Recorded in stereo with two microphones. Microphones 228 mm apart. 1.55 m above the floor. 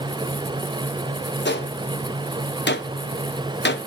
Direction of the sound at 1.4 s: 50° left (ahead or behind).